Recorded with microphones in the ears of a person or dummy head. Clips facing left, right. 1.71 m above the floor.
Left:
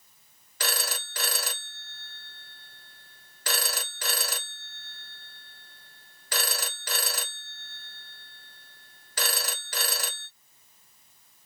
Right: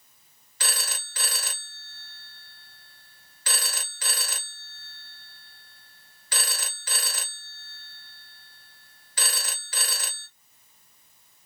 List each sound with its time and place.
0.6 s a phone ringing: 45° left (ahead or behind), 1.2 m